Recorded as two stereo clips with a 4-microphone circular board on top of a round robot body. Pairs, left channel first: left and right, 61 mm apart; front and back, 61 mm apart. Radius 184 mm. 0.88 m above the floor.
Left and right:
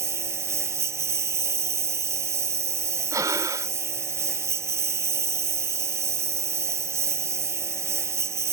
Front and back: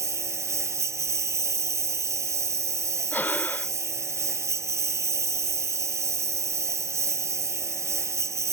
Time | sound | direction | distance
0.0 | a lawn mower | 135° right | ?
3.1 | breathing | 70° right | ?